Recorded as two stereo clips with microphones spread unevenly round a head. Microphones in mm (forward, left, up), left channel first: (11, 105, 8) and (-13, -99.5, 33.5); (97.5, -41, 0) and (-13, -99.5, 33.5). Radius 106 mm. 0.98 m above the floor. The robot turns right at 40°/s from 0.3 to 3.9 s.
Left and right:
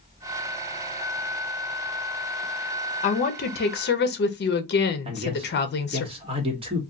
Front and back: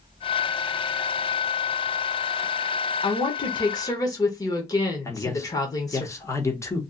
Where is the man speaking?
30° right, 1.1 m.